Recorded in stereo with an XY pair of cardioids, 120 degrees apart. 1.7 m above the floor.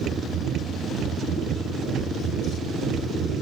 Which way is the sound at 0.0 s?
60° right.